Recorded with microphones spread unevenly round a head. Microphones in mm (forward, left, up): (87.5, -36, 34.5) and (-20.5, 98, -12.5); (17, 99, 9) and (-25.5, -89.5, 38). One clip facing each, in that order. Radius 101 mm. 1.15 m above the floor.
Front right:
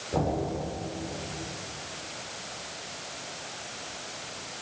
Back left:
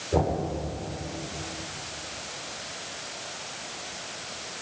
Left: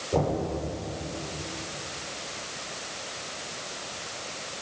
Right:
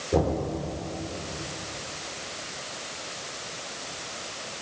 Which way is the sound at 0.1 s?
170° right.